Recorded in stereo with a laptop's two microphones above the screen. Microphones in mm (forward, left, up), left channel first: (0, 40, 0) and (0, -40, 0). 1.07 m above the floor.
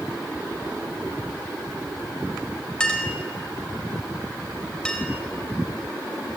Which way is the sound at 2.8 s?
10° left (ahead or behind).